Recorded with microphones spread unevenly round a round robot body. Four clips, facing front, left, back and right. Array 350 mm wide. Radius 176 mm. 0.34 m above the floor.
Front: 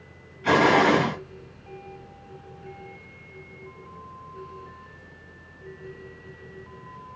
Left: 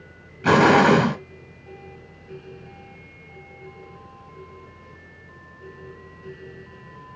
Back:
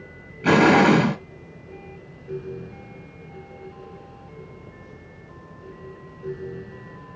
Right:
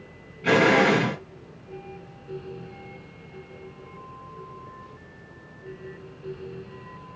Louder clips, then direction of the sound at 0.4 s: Left 4 dB, back 3 dB; 140° left.